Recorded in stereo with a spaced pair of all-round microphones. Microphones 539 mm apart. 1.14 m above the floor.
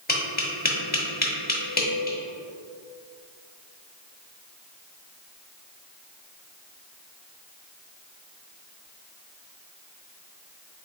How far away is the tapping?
About 0.9 m.